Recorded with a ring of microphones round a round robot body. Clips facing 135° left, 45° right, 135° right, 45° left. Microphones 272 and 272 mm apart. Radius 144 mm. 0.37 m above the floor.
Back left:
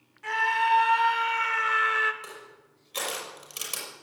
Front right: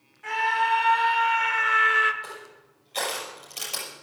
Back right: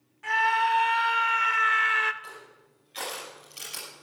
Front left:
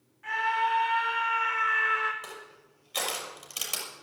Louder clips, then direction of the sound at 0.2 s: Front right 1 dB, back right 3 dB; 160° right.